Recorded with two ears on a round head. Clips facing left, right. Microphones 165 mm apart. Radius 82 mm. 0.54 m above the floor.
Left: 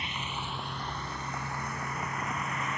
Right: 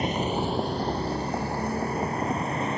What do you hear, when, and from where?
0.0 s a vehicle: 40° right (ahead or behind); by 2.8 s 30° right (ahead or behind)